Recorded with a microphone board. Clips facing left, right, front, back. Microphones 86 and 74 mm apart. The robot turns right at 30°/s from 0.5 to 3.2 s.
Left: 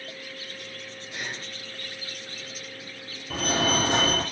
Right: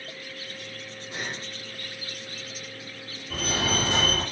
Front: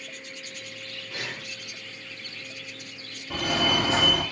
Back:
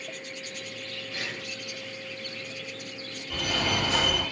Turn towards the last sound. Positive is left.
turn(degrees=50)